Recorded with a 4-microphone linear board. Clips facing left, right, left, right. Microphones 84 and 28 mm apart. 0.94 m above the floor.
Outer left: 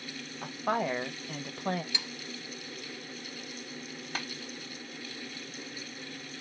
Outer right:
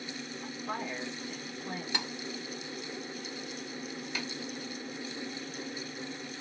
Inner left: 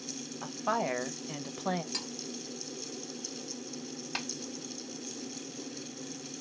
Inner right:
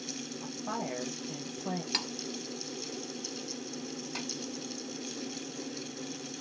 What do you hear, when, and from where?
0.4 s a woman speaking: 70° left (ahead or behind), 1.1 m
1.9 s cutlery clinking: 50° right (ahead or behind), 0.7 m
4.2 s tapping: 45° left (ahead or behind), 2 m